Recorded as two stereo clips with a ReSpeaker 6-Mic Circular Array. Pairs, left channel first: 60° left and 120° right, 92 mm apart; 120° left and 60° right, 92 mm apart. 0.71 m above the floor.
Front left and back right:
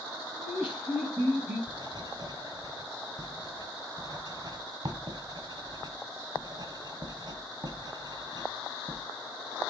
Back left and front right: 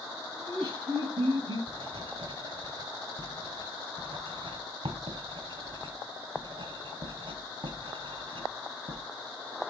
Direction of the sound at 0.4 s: 45° right.